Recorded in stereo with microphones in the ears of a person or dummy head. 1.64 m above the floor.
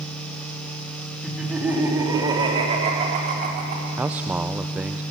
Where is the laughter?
Centre (ahead or behind), 4 m; by 3.9 s 45° right (ahead or behind), 5.5 m.